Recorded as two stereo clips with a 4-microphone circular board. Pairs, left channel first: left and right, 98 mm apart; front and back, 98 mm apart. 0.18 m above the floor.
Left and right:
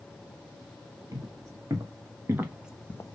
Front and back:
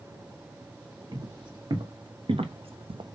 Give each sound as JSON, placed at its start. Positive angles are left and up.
{"t": 1.1, "sound": "footsteps", "azimuth_deg": -140, "distance_m": 2.5}